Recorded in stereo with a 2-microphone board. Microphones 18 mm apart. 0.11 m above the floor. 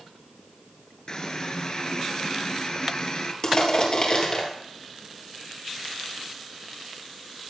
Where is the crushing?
45° left (ahead or behind), 3 m.